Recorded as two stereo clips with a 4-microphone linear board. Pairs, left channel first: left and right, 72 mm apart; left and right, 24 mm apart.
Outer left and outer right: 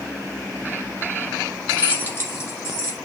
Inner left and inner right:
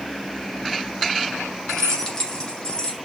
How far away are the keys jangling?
About 0.6 m.